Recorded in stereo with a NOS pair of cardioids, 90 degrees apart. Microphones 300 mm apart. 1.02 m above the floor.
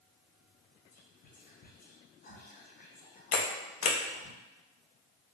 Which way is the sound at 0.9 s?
30° left.